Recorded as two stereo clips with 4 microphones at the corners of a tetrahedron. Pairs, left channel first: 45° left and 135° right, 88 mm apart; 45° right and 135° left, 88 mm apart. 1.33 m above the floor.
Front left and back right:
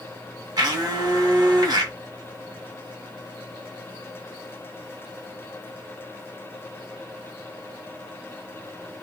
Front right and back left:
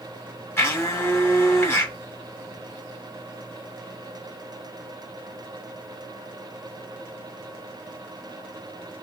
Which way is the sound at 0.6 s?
105° right.